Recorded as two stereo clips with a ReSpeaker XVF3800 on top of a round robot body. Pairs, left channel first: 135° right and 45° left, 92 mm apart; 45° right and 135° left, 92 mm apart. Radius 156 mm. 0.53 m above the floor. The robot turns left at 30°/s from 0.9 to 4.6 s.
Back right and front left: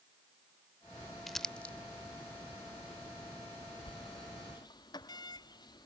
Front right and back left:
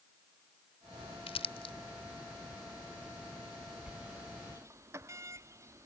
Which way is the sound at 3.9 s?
145° right.